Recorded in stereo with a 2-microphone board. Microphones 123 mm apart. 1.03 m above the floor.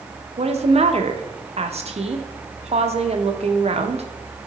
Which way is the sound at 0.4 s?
55° right (ahead or behind).